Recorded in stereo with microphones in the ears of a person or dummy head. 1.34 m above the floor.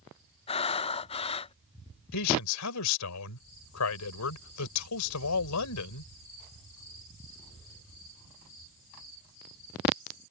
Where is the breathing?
30° left (ahead or behind).